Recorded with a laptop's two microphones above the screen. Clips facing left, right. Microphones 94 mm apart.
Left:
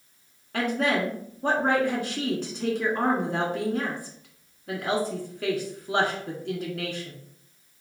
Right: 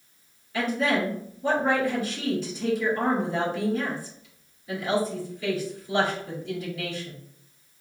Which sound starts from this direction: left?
A woman speaking, at 0.5 s.